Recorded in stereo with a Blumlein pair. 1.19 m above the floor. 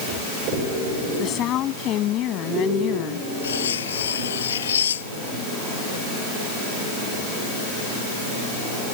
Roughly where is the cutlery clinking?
Ahead left.